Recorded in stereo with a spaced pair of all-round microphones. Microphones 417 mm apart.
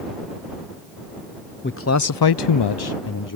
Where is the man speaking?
25° left (ahead or behind); by 3.4 s 45° left (ahead or behind).